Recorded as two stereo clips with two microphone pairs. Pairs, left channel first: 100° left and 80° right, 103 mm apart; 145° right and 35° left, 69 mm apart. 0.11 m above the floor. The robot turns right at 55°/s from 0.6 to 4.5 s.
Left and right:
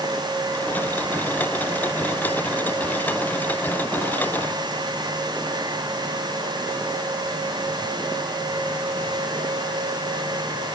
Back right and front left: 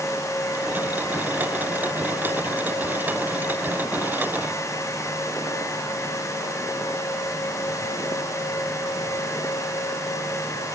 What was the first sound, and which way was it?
Only background noise.